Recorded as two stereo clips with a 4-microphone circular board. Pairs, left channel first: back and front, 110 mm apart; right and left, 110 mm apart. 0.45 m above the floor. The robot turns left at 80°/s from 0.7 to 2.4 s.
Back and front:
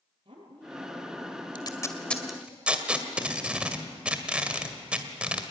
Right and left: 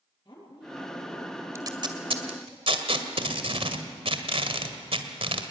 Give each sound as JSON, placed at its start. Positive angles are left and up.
{"t": 0.2, "sound": "a woman speaking", "azimuth_deg": -30, "distance_m": 7.5}
{"t": 1.6, "sound": "tape being pulled", "azimuth_deg": 145, "distance_m": 2.0}